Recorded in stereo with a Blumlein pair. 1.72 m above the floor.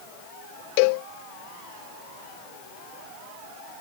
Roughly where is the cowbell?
Ahead left.